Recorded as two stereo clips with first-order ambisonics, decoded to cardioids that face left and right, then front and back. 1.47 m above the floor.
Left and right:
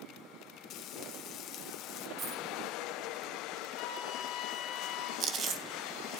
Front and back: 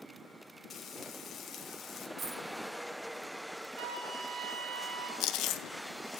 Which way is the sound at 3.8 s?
125° left.